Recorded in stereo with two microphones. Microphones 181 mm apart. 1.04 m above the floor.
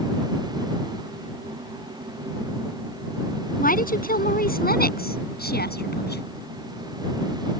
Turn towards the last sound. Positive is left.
turn(degrees=65)  # may be behind; listen again after turning